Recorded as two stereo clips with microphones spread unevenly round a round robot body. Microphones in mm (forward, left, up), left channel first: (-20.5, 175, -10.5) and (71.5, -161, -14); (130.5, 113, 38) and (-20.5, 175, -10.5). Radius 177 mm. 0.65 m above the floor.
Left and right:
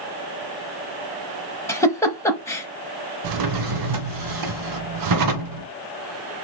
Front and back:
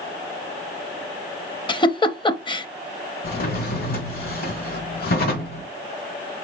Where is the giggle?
25° left, 0.7 m.